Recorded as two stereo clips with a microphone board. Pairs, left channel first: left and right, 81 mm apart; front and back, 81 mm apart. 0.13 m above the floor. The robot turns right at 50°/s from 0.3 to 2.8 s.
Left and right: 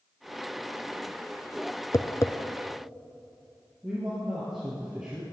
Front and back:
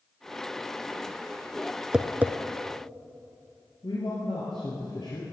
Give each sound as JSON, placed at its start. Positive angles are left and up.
{"t": 1.9, "sound": "tapping", "azimuth_deg": 105, "distance_m": 0.7}
{"t": 3.8, "sound": "a man speaking", "azimuth_deg": -10, "distance_m": 3.0}